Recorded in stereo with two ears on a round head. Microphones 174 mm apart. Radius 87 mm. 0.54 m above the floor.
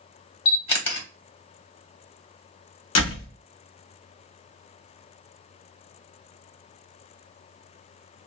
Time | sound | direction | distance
0.5 | a camera shutter | 30° left (ahead or behind) | 1.0 m
3.0 | a door slam | 75° left (ahead or behind) | 1.1 m